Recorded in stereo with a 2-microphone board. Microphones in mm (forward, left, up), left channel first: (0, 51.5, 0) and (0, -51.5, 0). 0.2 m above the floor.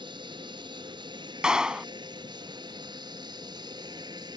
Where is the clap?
10° right (ahead or behind).